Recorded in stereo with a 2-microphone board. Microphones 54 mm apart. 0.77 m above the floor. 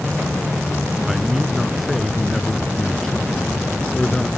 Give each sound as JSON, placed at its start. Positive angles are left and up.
{"t": 1.1, "sound": "a man speaking", "side_deg": -5}